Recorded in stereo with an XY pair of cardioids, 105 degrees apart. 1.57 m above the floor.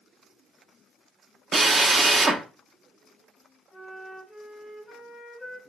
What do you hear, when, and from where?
1.5 s a drill: 35° right, 0.5 m
3.7 s a flute: 15° left, 0.8 m